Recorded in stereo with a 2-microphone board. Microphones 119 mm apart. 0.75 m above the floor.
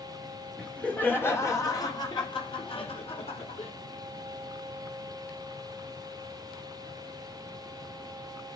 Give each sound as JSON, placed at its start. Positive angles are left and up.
{"t": 0.6, "sound": "laughter", "side_deg": 10, "distance_m": 2.5}